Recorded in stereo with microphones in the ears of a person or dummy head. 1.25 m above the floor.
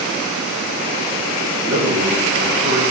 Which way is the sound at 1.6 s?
50° right (ahead or behind).